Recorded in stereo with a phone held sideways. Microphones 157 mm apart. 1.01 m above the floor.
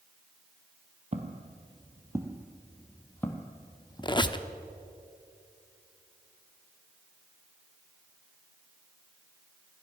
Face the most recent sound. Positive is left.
turn(degrees=30)  # may be behind; listen again after turning